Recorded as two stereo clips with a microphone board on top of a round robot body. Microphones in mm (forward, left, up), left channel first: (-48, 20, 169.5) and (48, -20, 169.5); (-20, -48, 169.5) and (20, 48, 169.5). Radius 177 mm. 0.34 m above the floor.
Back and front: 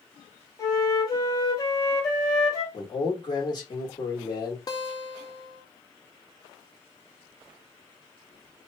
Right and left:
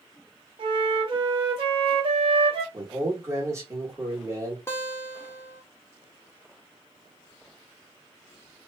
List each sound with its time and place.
0.6 s a flute: 105° left, 1.1 m
2.7 s a man speaking: 120° left, 1.5 m
4.7 s a guitar: 170° right, 0.9 m